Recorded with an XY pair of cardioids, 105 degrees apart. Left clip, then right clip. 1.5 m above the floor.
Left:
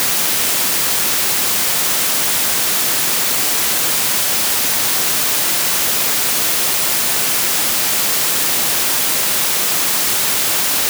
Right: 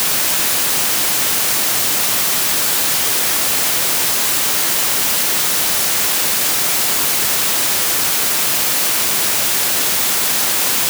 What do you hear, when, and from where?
Only background noise.